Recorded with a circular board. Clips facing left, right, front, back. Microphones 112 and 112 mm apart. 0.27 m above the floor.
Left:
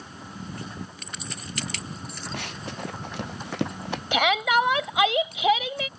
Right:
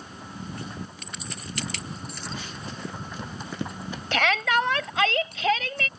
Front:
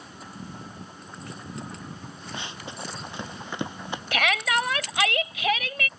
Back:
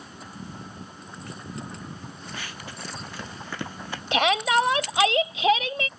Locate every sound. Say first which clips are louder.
2.3 s running footsteps: left 2 dB, front 4 dB; 70° left
4.1 s a shout: left 2 dB, back 4 dB; 150° left